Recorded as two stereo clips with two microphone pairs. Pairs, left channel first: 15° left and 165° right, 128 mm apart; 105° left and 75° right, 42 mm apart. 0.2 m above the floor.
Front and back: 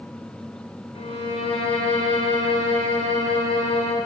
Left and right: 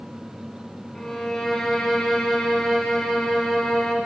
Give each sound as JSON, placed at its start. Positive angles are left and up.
{"t": 0.9, "sound": "a violin", "azimuth_deg": 30, "distance_m": 1.0}